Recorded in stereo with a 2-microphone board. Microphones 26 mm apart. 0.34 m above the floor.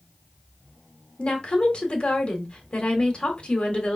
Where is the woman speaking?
40° left (ahead or behind), 1.2 m.